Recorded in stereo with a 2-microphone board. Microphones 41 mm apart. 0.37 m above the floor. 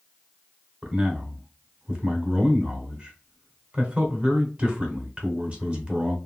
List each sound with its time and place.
0.8 s a man speaking: 35° right (ahead or behind), 1.1 m